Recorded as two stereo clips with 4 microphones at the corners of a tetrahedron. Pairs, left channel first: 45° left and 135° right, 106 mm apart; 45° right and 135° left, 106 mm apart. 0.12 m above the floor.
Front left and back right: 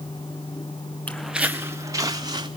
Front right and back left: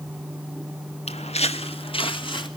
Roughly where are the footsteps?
Ahead right.